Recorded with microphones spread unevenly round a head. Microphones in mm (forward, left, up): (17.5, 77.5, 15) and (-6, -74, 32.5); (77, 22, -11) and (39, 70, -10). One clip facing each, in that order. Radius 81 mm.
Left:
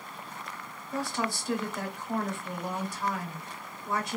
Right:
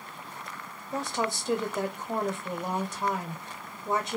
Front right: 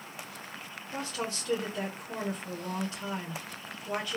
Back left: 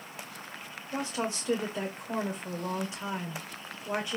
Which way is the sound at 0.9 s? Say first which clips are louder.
Right 1 dB, back left 3 dB; 160° right.